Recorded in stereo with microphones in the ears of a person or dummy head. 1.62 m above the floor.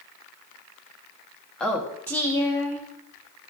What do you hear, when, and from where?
1.6 s a woman speaking: 10° left (ahead or behind), 1.4 m; by 3.5 s 25° left (ahead or behind), 2.5 m